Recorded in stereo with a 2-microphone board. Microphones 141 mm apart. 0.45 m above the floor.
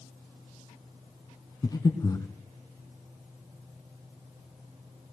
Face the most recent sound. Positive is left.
turn(degrees=25)  # may be behind; listen again after turning